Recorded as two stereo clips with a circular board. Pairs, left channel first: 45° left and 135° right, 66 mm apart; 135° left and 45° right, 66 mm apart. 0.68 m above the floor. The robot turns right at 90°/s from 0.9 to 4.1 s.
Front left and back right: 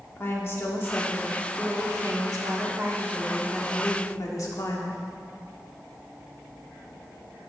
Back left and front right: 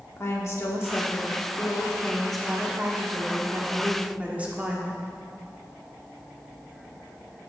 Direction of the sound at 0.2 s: 95° left.